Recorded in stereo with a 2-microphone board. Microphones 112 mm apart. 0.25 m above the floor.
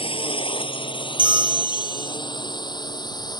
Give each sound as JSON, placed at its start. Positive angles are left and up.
{"t": 0.0, "sound": "a drone", "side_deg": 55}
{"t": 1.2, "sound": "a bell", "side_deg": -45}